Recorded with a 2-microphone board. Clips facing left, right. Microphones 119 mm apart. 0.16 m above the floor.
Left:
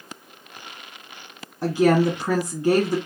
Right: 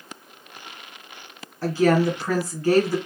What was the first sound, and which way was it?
A woman speaking, 20° left (ahead or behind).